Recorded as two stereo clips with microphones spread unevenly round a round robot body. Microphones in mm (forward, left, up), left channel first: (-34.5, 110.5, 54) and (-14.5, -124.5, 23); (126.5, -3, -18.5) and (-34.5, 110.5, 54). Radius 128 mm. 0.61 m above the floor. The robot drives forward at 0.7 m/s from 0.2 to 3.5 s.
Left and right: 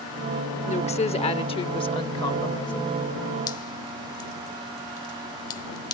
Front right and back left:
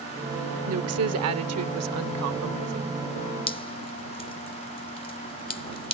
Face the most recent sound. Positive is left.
turn(degrees=20)